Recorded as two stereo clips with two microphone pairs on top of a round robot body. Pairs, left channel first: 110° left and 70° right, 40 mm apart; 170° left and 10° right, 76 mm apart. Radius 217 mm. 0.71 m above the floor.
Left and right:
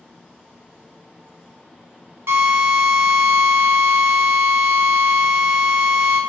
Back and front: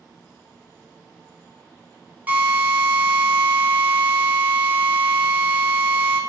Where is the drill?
80° right, 1.9 m.